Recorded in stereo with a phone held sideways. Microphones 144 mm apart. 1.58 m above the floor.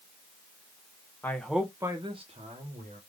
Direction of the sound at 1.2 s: 15° left (ahead or behind).